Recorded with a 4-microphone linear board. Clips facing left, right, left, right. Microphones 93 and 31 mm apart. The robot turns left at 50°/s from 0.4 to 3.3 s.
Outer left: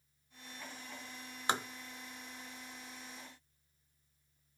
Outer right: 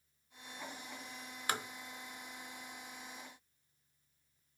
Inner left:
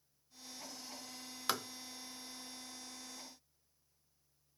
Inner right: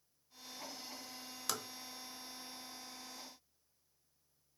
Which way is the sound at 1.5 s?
25° left (ahead or behind).